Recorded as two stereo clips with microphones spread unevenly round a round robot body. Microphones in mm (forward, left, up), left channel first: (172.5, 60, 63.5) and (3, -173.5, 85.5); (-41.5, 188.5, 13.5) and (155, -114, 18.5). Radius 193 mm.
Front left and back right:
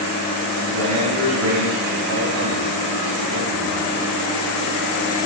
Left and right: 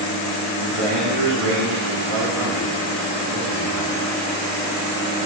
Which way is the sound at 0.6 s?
105° right.